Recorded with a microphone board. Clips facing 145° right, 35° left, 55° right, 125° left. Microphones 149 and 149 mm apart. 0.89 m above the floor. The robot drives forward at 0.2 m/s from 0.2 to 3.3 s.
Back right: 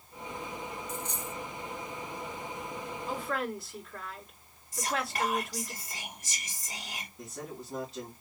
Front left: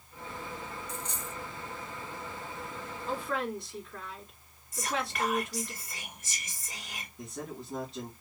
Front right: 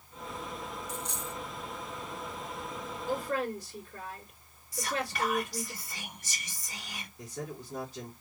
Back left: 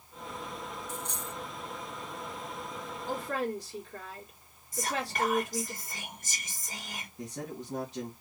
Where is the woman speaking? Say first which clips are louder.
Front left 1 dB, front right 1 dB; 130° left, 2.5 m.